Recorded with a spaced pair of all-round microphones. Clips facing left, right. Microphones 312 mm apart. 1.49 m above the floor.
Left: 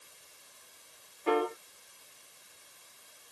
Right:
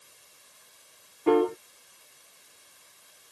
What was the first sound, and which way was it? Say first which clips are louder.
A piano: right 8 dB; 55° right (ahead or behind).